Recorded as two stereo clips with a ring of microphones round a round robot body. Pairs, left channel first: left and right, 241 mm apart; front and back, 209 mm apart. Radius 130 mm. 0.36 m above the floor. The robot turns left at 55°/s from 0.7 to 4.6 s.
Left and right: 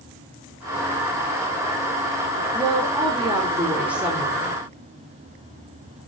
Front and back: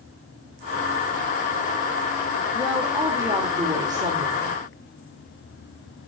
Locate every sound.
2.5 s a woman speaking: 85° right, 0.8 m; by 4.6 s 160° left, 0.8 m